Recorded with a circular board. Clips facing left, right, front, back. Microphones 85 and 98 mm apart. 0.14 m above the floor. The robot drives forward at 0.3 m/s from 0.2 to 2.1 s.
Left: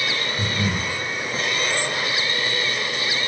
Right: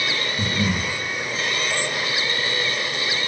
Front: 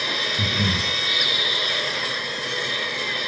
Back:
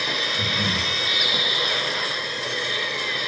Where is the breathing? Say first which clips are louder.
Right 3 dB, front 1 dB; 15° right, 1.1 m; by 0.9 s 20° right, 1.0 m.